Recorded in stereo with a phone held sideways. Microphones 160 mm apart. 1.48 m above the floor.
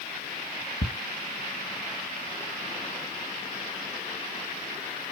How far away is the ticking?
About 1.6 m.